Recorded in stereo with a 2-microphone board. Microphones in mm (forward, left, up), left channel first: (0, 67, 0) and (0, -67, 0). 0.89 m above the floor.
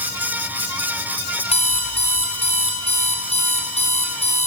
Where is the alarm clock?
55° left (ahead or behind), 4 m.